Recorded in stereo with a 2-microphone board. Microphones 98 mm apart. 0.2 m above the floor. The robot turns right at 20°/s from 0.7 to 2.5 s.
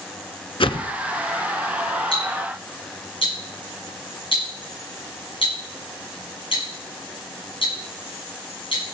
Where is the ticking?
65° left (ahead or behind), 6 m; by 8.8 s 55° left (ahead or behind), 6 m.